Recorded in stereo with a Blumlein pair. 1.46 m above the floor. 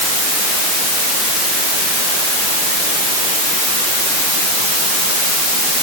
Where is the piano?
I don't hear a piano.